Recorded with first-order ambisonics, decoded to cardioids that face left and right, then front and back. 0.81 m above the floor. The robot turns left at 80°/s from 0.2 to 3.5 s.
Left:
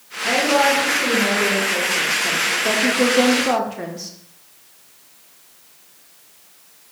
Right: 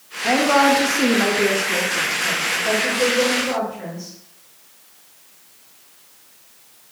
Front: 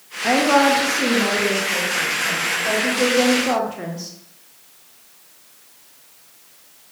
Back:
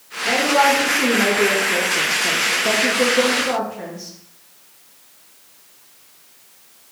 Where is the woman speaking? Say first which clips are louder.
Right 1 dB, even; 35° right, 0.7 m; by 4.2 s 65° left, 0.7 m.